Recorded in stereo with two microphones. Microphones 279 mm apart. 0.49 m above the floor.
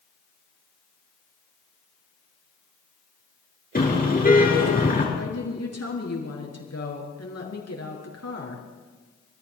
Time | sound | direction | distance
3.8 | a car horn | 30° left (ahead or behind) | 5 m
5.1 | a woman speaking | 65° left (ahead or behind) | 5.5 m